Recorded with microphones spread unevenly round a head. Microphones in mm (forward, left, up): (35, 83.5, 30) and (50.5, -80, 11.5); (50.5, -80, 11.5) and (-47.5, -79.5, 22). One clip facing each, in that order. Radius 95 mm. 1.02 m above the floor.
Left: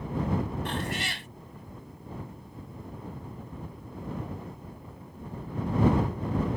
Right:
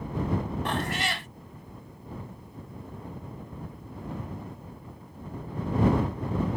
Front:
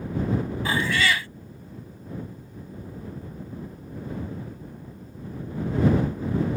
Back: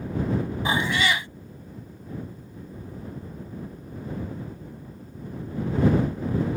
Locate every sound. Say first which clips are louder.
0.7 s a cat meowing: right 3 dB, even; 120° right